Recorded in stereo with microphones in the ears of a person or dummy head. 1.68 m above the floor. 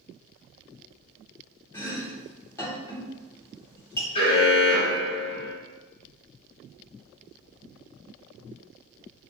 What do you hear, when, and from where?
1.7 s chopping: 20° left (ahead or behind), 1.8 m
4.2 s an alarm: 35° left (ahead or behind), 1.9 m